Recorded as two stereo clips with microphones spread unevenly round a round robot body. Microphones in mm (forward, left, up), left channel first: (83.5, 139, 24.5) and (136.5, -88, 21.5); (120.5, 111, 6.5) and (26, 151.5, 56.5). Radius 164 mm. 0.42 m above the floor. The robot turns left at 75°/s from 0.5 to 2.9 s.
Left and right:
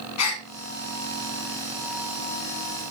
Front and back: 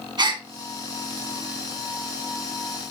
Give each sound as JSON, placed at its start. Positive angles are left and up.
{"t": 0.2, "sound": "a gasp", "azimuth_deg": 105, "distance_m": 2.0}